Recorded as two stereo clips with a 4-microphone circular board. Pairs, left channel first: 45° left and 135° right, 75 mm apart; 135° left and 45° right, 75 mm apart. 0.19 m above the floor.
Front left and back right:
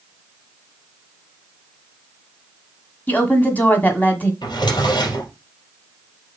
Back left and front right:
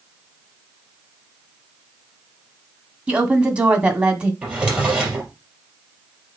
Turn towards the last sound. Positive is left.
turn(degrees=30)